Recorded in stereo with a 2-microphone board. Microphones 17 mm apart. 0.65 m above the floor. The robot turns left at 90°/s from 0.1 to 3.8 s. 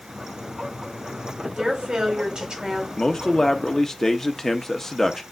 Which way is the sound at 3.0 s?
115° left.